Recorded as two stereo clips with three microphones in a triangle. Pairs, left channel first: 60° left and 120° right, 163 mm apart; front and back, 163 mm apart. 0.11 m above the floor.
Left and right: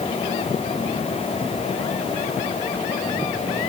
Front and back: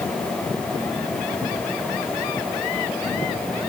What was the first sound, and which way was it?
Only background noise.